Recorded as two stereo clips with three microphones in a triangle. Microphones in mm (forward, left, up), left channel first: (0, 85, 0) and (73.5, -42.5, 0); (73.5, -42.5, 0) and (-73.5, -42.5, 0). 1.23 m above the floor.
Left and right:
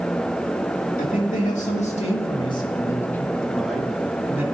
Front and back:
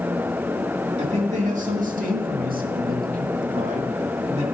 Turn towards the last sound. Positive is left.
turn(degrees=-135)